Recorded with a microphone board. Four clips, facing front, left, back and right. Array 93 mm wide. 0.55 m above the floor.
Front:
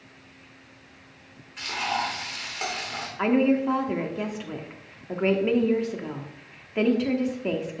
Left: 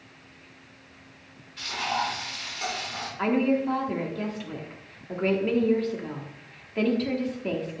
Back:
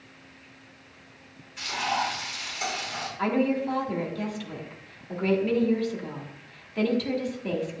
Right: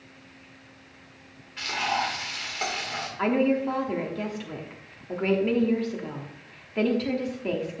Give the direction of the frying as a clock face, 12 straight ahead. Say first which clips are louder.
Right 1 dB, even; 2 o'clock.